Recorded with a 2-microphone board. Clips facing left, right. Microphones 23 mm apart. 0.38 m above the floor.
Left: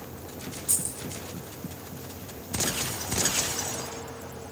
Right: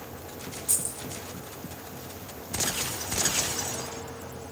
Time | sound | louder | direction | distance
0.7 | keys jangling | even | 5° left (ahead or behind) | 4.5 m